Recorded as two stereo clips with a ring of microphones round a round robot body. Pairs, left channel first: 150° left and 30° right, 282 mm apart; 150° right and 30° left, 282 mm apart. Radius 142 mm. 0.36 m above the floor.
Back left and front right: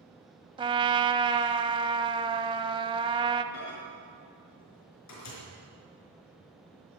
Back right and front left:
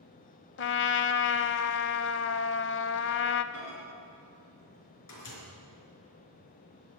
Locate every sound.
0.6 s a trumpet: 100° right, 0.7 m
3.5 s a microwave: straight behind, 4.5 m